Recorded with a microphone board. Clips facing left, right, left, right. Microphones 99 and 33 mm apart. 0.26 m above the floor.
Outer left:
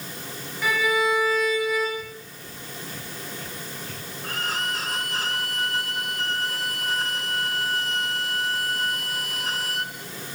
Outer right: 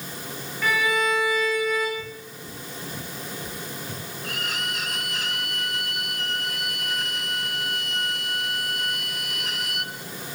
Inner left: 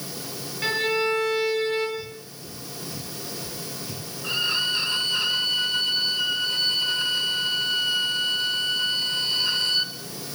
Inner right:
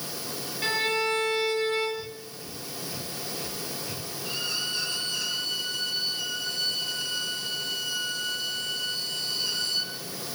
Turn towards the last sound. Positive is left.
turn(degrees=35)  # may be behind; listen again after turning